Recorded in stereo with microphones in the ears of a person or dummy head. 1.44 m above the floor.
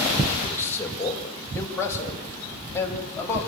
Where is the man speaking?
15° left (ahead or behind), 4.5 m.